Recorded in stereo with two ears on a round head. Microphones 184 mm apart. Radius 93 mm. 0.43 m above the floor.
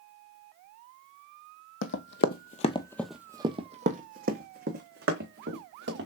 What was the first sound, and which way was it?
Running footsteps, 65° left (ahead or behind).